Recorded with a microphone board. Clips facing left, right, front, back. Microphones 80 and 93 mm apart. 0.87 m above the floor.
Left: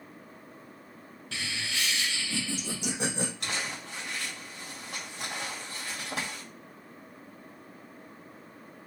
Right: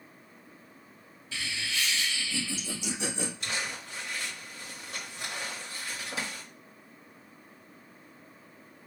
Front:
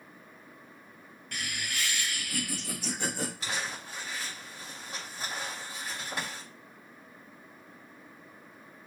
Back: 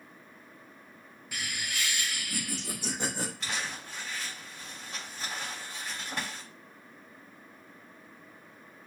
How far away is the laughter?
About 1.3 m.